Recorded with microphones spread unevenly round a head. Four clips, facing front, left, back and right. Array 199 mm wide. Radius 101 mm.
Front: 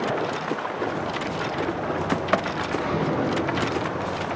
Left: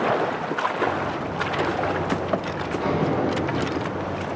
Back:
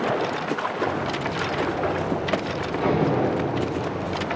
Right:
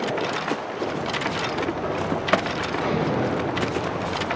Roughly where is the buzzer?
Behind.